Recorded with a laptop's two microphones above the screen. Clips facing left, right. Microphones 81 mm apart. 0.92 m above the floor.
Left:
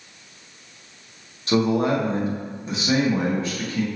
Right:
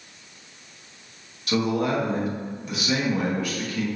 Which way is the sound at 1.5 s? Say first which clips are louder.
Left 4 dB; 30° left (ahead or behind).